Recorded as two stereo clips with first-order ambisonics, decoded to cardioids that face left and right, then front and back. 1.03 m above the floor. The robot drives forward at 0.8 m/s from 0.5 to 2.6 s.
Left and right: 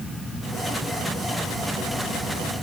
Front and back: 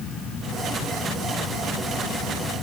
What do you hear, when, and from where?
Only background noise.